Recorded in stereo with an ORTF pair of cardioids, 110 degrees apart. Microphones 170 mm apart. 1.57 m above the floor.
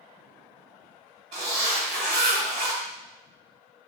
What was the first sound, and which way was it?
A zipper, 50° right.